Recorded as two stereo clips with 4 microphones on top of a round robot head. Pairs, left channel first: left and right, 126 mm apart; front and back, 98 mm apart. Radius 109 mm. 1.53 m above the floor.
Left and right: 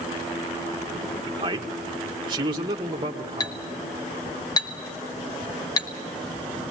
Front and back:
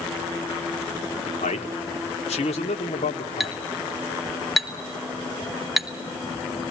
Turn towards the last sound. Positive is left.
turn(degrees=85)